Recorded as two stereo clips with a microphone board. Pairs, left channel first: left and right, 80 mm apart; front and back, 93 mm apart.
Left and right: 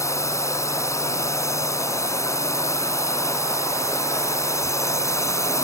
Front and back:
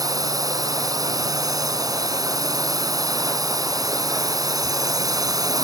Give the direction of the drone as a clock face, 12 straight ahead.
7 o'clock.